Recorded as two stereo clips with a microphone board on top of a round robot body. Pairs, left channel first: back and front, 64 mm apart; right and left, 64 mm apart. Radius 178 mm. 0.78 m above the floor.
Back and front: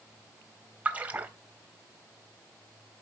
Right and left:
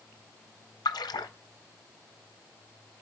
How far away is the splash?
About 0.5 m.